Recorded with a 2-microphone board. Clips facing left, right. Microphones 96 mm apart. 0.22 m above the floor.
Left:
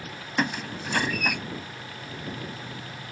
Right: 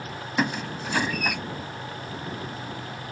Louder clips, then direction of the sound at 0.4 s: Right 1 dB; 5° right (ahead or behind).